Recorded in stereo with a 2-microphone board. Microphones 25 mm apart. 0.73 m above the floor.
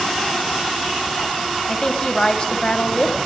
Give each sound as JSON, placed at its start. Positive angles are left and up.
{"t": 1.7, "sound": "a woman speaking", "side_deg": 30, "distance_m": 5.0}